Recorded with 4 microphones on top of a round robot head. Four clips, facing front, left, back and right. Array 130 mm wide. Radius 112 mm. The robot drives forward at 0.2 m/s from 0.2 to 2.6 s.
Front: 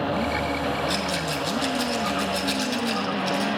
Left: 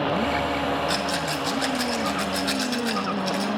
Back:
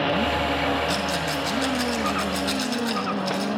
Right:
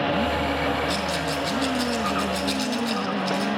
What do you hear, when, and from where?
0.9 s a rattle: 135° left, 3.5 m; by 3.5 s 140° left, 4 m